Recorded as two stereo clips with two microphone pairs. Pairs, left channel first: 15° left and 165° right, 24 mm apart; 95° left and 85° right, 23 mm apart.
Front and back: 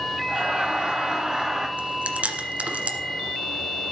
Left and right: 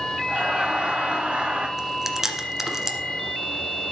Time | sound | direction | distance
0.3 | laughter | 130° right | 1.9 m
1.8 | chewing | 160° right | 1.5 m